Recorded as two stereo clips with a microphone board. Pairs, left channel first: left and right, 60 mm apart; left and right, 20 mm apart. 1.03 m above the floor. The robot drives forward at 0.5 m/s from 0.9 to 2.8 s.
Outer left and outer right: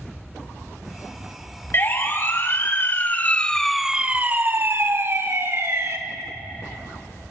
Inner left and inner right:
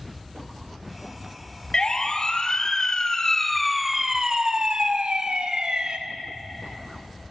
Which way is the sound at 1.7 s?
40° left (ahead or behind).